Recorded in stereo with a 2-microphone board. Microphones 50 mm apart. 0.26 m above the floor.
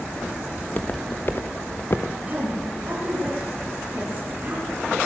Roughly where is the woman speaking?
Right.